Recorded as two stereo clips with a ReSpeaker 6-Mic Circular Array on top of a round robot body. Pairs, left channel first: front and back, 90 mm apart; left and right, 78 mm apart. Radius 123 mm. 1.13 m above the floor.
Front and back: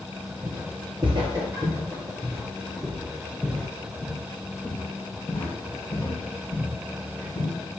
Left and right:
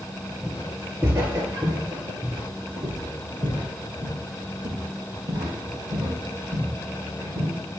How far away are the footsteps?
About 1.4 m.